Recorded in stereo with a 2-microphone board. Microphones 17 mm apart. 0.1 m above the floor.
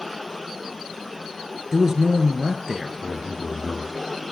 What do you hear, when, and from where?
1.7 s a man speaking: 30° right (ahead or behind), 1.4 m
3.0 s a man speaking: 25° left (ahead or behind), 2.5 m